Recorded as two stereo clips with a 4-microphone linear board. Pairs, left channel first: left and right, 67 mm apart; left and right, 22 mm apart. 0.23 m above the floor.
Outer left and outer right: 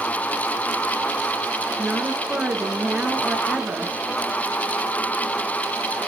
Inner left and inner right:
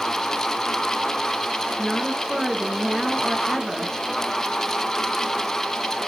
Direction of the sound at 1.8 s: 15° right (ahead or behind).